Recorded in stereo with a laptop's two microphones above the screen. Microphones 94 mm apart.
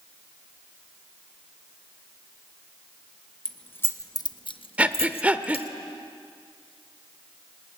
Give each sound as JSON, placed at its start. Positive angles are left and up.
{"t": 3.5, "sound": "keys jangling", "side_deg": 10, "distance_m": 0.7}
{"t": 4.8, "sound": "breathing", "side_deg": -15, "distance_m": 1.0}